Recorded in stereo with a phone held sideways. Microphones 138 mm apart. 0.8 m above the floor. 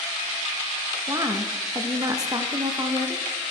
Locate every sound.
1.1 s a woman speaking: 25° right (ahead or behind), 0.6 m